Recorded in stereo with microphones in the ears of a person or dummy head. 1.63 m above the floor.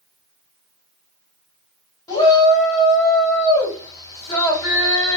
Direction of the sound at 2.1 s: 25° left (ahead or behind).